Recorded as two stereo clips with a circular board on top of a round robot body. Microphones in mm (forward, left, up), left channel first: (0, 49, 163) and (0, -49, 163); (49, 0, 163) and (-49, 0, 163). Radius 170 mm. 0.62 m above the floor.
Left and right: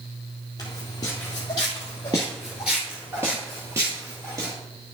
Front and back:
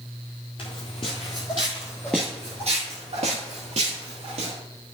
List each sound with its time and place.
0.6 s footsteps: 35° left, 1.0 m; by 4.5 s 155° right, 1.3 m